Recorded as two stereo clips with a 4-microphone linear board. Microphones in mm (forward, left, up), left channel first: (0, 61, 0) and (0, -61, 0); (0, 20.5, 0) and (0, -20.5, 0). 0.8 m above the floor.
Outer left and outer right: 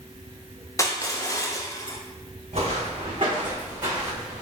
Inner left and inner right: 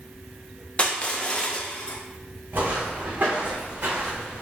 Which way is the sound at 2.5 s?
55° right (ahead or behind).